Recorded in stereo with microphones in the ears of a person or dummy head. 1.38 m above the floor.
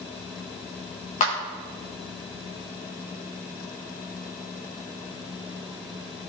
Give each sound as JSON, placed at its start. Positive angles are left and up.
{"t": 1.2, "sound": "a clap", "side_deg": 35, "distance_m": 1.2}